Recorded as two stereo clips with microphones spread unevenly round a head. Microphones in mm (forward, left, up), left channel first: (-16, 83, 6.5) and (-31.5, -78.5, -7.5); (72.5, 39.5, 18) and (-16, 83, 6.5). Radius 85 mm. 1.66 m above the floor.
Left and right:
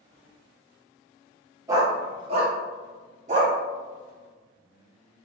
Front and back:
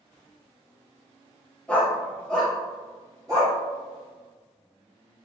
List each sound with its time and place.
1.7 s a dog barking: 50° right, 1.1 m; by 3.5 s 135° right, 1.9 m